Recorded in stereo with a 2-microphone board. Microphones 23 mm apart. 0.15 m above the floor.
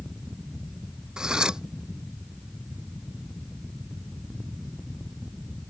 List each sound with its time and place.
1.2 s cutlery clinking: 35° right (ahead or behind)